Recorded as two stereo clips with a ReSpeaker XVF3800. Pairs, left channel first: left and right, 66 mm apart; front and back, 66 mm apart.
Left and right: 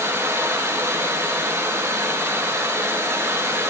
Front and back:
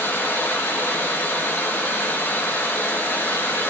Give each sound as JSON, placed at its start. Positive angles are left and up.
{"t": 0.0, "sound": "running water", "azimuth_deg": -50, "distance_m": 3.5}